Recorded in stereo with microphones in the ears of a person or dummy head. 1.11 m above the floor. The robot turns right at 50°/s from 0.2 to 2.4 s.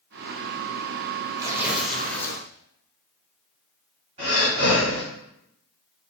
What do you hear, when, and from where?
1.4 s tearing paper: 20° right, 0.5 m; by 2.4 s 30° left, 0.5 m
4.2 s breathing: 35° right (ahead or behind), 1.7 m